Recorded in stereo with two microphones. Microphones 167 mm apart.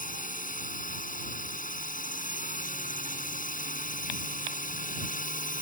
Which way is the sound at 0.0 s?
55° left (ahead or behind).